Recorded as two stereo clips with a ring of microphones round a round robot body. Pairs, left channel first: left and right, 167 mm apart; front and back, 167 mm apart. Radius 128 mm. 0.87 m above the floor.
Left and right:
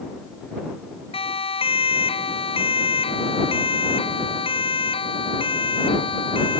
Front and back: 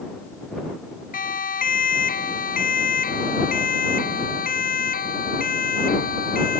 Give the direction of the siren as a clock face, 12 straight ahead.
11 o'clock.